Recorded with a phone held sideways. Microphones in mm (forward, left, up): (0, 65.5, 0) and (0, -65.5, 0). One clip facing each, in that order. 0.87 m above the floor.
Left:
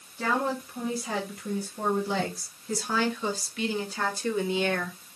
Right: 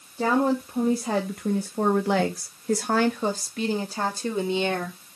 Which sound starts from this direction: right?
A woman speaking, at 0.2 s.